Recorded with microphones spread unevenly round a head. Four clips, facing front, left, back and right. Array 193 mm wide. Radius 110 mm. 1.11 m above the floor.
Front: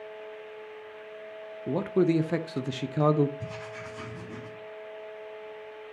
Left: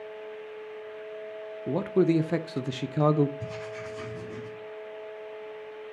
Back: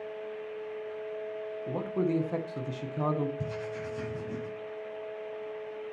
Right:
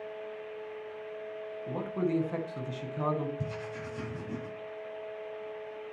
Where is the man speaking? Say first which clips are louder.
Left 8 dB, front 6 dB; 70° left, 0.6 m.